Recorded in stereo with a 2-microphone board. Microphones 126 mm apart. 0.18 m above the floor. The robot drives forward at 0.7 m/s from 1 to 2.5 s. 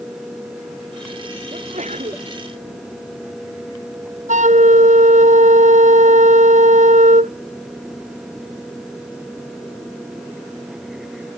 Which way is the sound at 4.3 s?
85° right.